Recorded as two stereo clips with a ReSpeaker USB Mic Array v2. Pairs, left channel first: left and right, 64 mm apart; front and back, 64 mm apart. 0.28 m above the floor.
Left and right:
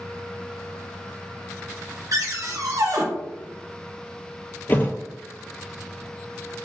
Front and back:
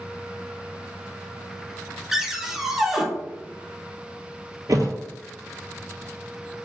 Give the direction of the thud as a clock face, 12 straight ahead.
7 o'clock.